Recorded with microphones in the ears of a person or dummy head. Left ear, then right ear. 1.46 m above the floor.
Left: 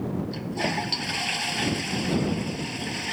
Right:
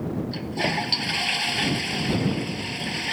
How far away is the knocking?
I don't hear knocking.